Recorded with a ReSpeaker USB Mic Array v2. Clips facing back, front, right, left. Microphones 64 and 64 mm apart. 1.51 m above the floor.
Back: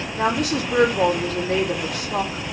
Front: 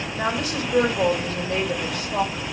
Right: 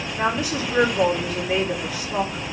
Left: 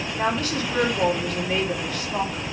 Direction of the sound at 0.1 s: 170° right.